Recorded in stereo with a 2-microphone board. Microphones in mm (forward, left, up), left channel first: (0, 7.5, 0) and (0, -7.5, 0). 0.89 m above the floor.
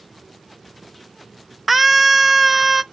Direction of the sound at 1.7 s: 10° right (ahead or behind).